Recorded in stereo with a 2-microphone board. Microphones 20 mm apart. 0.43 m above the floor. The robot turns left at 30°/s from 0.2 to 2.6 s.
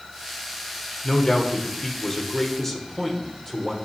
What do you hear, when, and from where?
1.0 s a man speaking: 75° left, 1.1 m; by 3.8 s 25° left, 1.1 m